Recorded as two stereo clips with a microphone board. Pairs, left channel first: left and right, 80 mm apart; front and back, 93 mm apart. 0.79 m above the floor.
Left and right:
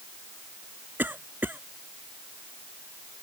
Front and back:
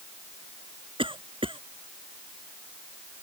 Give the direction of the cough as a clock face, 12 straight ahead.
5 o'clock.